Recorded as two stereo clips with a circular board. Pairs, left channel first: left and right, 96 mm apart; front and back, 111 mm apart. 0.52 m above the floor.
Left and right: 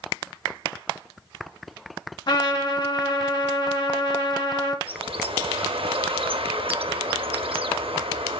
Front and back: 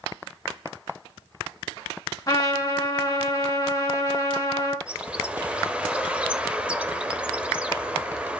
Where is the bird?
100° right, 0.5 m.